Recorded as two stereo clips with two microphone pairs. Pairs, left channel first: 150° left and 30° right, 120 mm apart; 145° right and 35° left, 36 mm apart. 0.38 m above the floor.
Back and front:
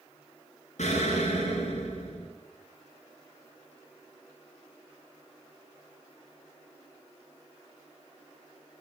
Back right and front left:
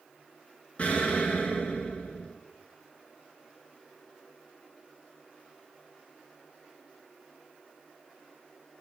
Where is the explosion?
165° left, 1.7 m.